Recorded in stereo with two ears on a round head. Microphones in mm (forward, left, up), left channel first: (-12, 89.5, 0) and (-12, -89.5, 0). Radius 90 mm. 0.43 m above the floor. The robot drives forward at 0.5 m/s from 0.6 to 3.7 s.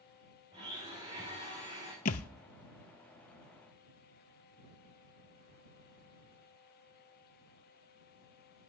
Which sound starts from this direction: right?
A blender, at 0.5 s.